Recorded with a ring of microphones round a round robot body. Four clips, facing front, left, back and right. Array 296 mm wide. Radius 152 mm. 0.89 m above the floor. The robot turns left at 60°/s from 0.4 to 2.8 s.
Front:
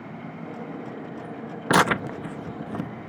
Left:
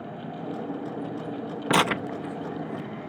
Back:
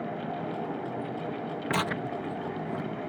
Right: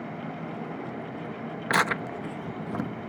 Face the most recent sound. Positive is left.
turn(degrees=-40)